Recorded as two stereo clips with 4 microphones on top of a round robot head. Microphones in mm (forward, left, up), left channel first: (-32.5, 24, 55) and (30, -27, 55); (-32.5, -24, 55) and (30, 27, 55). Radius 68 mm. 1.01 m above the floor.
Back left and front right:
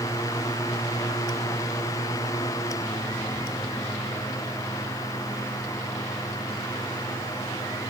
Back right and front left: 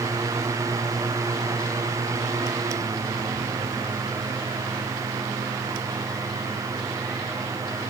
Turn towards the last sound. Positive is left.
No sound to turn to.